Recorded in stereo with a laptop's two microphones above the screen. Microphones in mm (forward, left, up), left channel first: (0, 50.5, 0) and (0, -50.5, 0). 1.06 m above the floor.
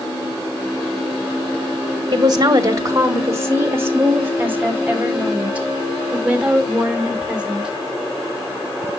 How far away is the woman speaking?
About 1.6 m.